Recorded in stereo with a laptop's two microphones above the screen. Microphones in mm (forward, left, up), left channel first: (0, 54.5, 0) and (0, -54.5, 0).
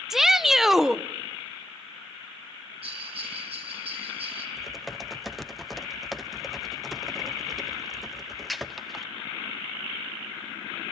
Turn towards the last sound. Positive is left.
turn(degrees=0)  # may be behind; listen again after turning